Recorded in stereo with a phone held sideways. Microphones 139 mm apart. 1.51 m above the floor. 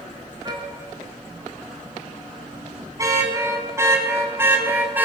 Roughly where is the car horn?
Right.